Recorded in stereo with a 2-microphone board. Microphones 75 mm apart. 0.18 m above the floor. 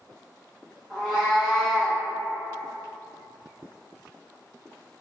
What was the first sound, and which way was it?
A cat meowing, centre (ahead or behind).